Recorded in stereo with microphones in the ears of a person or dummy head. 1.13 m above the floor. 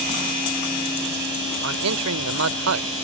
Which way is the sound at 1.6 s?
80° right.